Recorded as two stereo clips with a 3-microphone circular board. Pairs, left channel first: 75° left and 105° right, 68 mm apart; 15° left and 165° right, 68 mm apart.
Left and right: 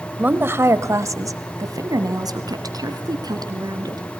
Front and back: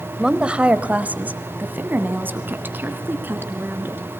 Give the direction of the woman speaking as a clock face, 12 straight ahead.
3 o'clock.